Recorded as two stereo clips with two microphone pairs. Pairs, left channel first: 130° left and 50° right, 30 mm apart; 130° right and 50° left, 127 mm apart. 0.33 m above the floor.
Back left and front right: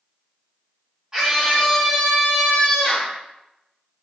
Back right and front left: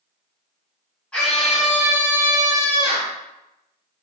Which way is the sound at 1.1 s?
65° right.